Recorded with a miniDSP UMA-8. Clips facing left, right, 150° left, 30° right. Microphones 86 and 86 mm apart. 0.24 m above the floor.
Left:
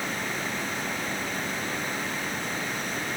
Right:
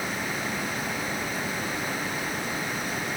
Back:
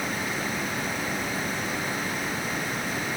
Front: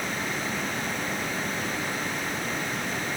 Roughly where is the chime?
I don't hear a chime.